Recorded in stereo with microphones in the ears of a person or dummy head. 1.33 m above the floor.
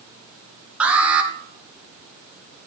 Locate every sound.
0.8 s an alarm: 10° right (ahead or behind), 2 m